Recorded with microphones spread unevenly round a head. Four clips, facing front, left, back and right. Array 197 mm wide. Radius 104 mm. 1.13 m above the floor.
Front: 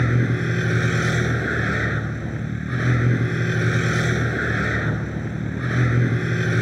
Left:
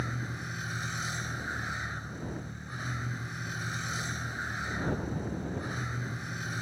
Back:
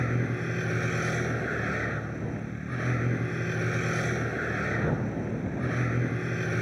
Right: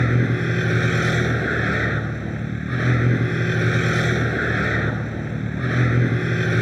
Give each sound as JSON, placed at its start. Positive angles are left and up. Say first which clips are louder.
{"t": 0.0, "sound": "a vehicle", "louder": "right 16 dB, front 7 dB", "azimuth_deg": -50}